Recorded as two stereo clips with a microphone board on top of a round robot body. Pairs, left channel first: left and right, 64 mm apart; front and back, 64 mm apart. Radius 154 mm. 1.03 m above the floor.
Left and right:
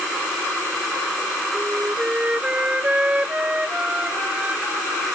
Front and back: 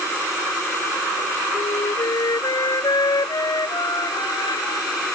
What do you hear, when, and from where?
1.5 s a flute: 20° right